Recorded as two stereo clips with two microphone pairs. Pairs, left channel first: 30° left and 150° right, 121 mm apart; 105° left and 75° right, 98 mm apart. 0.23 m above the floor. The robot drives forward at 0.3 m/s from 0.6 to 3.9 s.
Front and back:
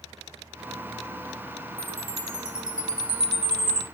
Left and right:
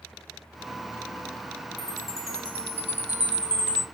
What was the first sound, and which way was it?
A chime, 95° right.